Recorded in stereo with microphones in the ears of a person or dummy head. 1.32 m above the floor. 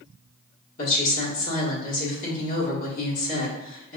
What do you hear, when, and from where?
0.8 s a woman speaking: 45° left (ahead or behind), 1.4 m